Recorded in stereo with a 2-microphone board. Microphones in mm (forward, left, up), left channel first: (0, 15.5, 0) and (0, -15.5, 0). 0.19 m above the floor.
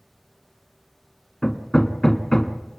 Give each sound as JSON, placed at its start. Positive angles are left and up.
{"t": 1.4, "sound": "hammering", "side_deg": 20, "distance_m": 1.4}